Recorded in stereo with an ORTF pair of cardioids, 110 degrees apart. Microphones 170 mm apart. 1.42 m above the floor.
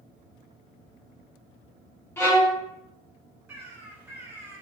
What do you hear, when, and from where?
2.2 s a violin: 15° left, 0.7 m
3.5 s a bird: 10° right, 0.8 m